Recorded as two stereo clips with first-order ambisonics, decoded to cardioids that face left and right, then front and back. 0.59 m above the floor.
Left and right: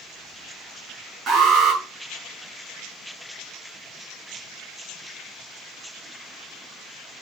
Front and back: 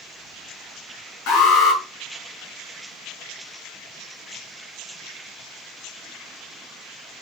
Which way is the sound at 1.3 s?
30° right.